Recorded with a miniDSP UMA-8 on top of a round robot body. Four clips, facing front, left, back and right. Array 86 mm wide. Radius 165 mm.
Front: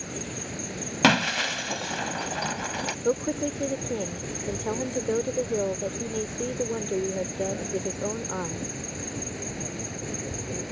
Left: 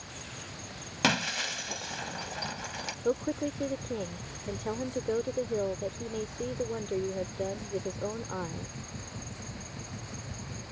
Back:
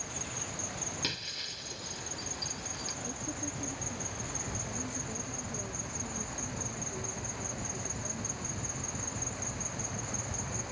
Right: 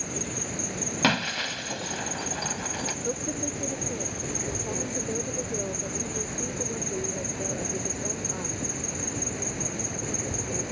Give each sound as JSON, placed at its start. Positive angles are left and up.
{"t": 0.0, "sound": "an insect", "azimuth_deg": -50}
{"t": 1.0, "sound": "breaking glass", "azimuth_deg": -10}
{"t": 3.0, "sound": "a woman speaking", "azimuth_deg": 15}